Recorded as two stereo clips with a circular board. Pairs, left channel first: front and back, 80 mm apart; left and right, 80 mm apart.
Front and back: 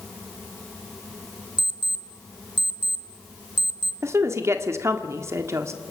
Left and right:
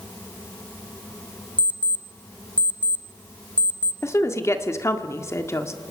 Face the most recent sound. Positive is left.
turn(degrees=135)